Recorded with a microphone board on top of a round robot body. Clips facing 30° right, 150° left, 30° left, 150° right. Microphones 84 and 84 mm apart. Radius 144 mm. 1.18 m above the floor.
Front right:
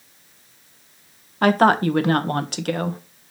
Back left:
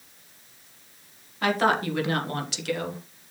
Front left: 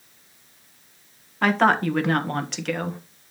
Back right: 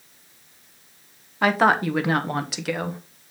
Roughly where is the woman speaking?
Ahead right.